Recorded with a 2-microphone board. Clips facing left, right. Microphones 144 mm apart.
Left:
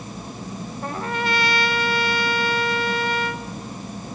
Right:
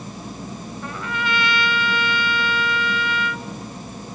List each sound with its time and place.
0.8 s a trumpet: 40° left (ahead or behind), 0.8 m